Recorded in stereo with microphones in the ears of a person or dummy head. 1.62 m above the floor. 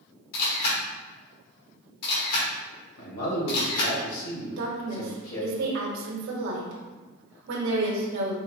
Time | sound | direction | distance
0.3 | a camera shutter | 60° left (ahead or behind) | 1.6 m
3.0 | a man speaking | 85° left | 2.0 m
4.6 | a woman speaking | 70° right (ahead or behind) | 1.2 m